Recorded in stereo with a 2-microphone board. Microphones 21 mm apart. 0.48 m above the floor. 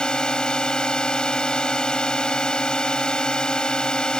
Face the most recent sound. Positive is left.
turn(degrees=40)  # may be behind; listen again after turning